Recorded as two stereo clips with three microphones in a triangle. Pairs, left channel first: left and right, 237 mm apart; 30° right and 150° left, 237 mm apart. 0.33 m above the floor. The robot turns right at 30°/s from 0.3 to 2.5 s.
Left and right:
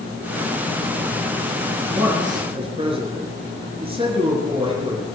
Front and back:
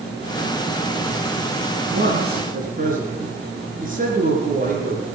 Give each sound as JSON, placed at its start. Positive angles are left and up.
{"t": 1.9, "sound": "a man speaking", "azimuth_deg": -175, "distance_m": 4.5}